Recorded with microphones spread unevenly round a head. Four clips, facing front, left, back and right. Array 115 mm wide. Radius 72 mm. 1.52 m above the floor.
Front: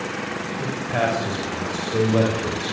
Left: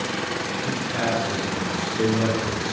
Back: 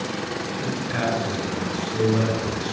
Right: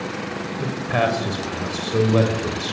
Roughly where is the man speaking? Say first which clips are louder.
Right 7 dB, front 4 dB; right.